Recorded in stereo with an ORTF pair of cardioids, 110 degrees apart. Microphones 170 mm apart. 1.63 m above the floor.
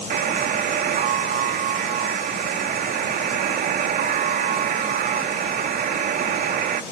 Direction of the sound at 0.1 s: 65° right.